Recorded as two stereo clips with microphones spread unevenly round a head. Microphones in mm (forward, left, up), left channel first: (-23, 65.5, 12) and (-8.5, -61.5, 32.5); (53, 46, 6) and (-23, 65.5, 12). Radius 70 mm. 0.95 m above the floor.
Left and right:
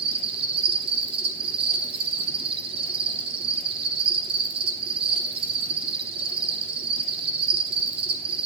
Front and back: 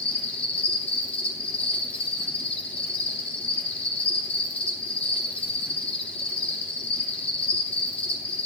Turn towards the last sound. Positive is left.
turn(degrees=-65)